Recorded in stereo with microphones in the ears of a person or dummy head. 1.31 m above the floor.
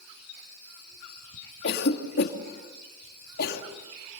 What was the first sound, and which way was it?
A cough, 55° left (ahead or behind).